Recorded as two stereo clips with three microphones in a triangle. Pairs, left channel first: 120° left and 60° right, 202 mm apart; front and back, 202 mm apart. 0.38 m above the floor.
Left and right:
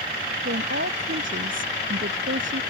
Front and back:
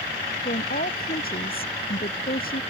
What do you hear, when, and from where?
0.5 s a woman speaking: 45° right